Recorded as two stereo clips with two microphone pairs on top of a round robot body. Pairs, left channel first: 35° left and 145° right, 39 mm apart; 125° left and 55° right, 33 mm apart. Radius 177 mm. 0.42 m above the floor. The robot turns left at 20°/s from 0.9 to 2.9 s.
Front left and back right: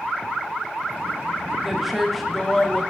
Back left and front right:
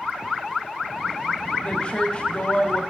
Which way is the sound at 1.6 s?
150° left.